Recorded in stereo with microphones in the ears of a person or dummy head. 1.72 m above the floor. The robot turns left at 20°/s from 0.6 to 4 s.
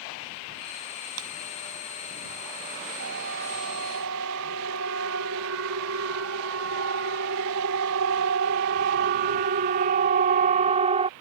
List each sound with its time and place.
1.2 s breaking glass: 75° right (ahead or behind); by 1.4 s 80° right
3.0 s a siren: 65° right (ahead or behind); by 11.1 s 35° right (ahead or behind)